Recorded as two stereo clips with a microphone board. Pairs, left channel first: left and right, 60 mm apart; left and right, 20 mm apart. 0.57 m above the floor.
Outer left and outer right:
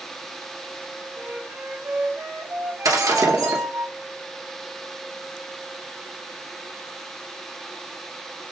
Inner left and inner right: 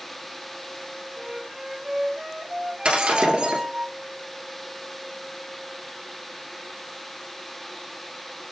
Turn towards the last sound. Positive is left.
turn(degrees=-75)  # may be behind; listen again after turning